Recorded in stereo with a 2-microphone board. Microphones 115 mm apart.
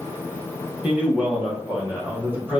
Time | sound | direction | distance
0.8 | a man speaking | 15° right (ahead or behind) | 0.9 m